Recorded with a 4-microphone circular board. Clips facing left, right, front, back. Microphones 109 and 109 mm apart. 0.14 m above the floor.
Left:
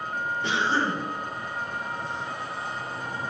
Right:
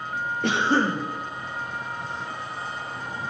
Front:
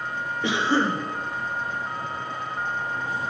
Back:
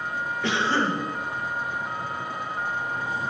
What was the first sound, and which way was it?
A cough, 75° right.